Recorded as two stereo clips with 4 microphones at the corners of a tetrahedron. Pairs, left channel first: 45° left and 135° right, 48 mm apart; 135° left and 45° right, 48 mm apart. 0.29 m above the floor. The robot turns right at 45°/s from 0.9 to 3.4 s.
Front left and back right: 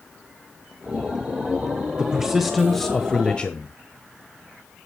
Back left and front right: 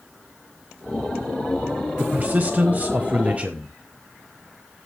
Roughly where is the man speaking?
Right.